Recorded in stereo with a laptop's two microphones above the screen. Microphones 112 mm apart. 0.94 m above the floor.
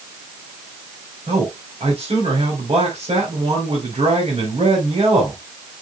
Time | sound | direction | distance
1.3 | a man speaking | 60° right (ahead or behind) | 4 m